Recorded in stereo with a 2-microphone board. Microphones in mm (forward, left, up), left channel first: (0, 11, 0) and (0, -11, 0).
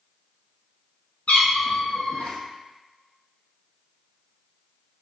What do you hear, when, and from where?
1.3 s a cat meowing: 70° left (ahead or behind), 0.6 m